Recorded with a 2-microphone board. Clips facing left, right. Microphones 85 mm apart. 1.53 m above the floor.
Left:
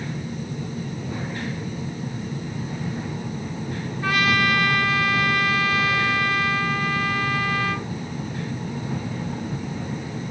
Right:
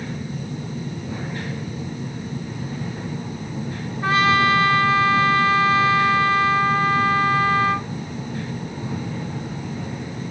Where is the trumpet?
25° right (ahead or behind), 0.8 m.